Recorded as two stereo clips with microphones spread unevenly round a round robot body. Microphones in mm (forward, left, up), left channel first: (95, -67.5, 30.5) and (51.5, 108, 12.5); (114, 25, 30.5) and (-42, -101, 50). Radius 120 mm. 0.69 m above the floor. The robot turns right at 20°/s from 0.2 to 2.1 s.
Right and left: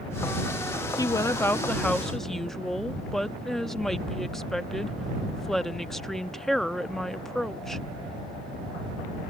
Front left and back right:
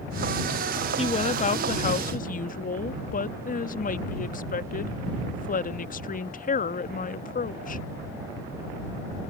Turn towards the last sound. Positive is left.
turn(degrees=15)